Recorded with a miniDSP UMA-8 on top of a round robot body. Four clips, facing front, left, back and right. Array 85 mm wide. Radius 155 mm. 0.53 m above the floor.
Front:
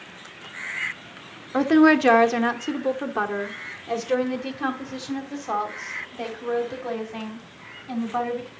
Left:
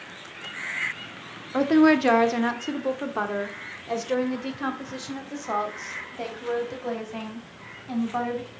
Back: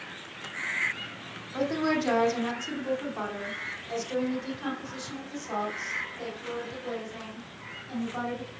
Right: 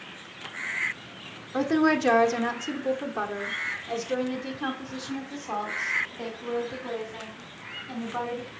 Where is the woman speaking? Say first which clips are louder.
Left 5 dB, front 11 dB; 20° left, 1.3 m; by 8.5 s 40° left, 4.5 m.